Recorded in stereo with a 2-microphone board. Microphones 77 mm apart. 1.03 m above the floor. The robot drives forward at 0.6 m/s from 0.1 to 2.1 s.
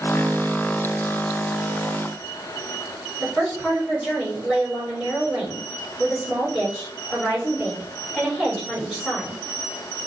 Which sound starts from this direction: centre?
A woman speaking, at 3.2 s.